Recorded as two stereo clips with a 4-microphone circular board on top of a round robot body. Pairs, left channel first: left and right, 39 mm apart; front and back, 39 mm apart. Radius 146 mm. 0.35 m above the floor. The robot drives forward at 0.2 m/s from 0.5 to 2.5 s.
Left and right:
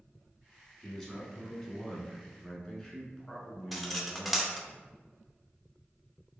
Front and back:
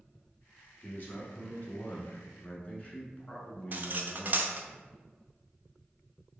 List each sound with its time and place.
0.8 s a man speaking: straight ahead, 1.2 m
3.7 s cutlery clinking: straight behind, 0.5 m